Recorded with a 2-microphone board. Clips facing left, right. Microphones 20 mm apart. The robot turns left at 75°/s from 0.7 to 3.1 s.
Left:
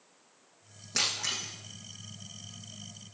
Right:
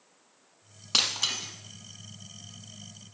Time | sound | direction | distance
0.9 | breaking glass | 85° right | 4.5 m